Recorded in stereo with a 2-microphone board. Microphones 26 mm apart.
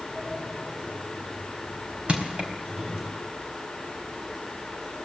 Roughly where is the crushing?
Right.